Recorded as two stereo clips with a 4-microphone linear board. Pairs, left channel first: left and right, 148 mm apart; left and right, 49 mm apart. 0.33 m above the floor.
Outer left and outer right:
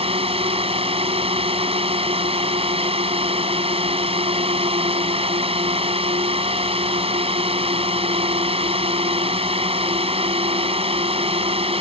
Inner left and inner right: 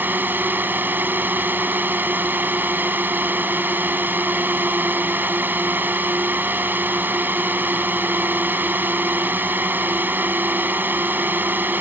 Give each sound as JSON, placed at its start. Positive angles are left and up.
{"t": 0.0, "sound": "a drone", "side_deg": -40}